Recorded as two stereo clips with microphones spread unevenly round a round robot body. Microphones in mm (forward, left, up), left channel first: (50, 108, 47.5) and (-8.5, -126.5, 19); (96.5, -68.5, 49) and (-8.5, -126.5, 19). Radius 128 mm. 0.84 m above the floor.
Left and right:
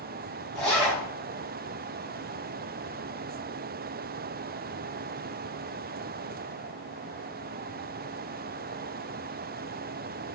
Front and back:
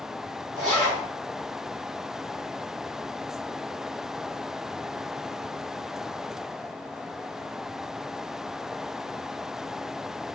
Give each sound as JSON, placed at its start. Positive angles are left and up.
{"t": 0.6, "sound": "a zipper", "azimuth_deg": 165, "distance_m": 3.5}